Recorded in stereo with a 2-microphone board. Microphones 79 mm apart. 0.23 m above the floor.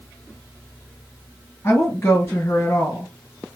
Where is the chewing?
No chewing in this recording.